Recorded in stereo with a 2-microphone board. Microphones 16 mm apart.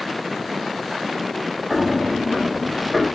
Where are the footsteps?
15° left (ahead or behind), 1.4 m; by 3.1 s 50° left (ahead or behind), 2.5 m.